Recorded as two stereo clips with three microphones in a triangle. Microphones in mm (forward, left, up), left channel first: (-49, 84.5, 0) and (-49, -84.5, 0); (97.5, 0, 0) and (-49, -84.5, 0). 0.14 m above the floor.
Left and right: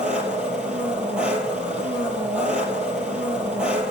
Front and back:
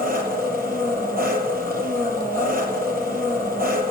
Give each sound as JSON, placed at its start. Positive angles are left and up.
{"t": 0.0, "sound": "an engine running", "azimuth_deg": -175, "distance_m": 2.5}